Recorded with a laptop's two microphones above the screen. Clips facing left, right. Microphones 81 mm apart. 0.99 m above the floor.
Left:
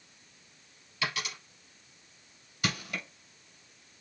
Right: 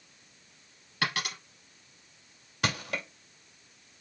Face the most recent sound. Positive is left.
turn(degrees=-75)  # may be behind; listen again after turning